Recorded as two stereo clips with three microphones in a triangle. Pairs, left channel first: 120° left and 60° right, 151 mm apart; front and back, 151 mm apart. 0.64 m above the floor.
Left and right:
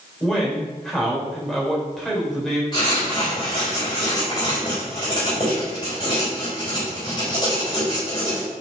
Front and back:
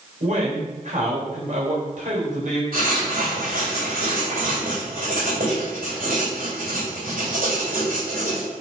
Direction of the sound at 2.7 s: 175° left.